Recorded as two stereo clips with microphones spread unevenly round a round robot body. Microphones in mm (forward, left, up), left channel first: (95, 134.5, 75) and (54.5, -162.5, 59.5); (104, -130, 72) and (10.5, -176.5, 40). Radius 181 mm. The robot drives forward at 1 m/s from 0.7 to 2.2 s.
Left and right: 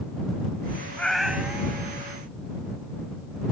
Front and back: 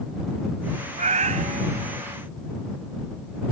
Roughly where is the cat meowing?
Behind.